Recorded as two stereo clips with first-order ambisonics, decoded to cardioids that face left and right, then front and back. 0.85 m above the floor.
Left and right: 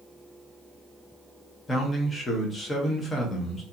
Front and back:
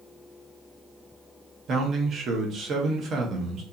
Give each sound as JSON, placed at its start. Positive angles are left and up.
{"t": 1.7, "sound": "a man speaking", "azimuth_deg": 150, "distance_m": 0.5}